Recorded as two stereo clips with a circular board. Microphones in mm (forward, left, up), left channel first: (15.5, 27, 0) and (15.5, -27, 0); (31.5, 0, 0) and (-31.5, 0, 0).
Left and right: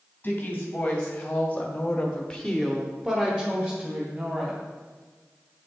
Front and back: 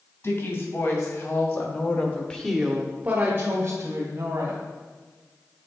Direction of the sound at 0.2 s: 30° left.